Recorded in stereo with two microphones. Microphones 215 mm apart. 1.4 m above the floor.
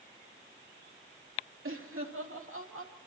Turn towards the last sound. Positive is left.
turn(degrees=-80)